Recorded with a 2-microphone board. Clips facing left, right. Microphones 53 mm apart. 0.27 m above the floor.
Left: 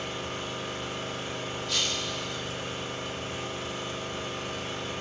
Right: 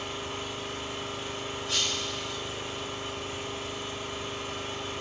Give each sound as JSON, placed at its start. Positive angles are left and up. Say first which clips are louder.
{"t": 0.0, "sound": "an engine running", "louder": "left 1 dB", "side_deg": 55, "distance_m": 1.9}
{"t": 1.7, "sound": "breaking glass", "louder": "even", "side_deg": -25, "distance_m": 1.8}